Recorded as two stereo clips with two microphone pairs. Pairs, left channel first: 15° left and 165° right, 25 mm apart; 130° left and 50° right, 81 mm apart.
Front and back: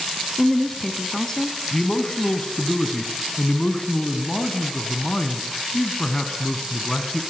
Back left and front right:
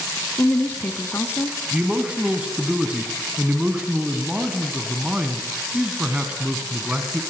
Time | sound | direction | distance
0.4 | a woman speaking | 90° left | 1.0 m
1.7 | a man speaking | 10° left | 1.5 m